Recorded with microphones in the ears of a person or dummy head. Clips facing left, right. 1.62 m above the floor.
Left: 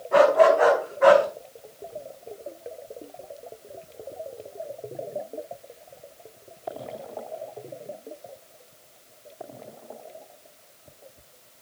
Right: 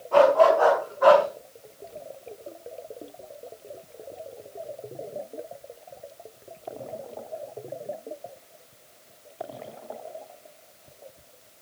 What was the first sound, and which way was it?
A dog barking, 20° left (ahead or behind).